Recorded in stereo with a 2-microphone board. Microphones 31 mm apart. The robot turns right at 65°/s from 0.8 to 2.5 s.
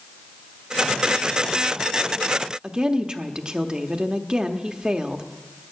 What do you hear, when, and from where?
2.6 s a woman speaking: 30° right (ahead or behind), 0.9 m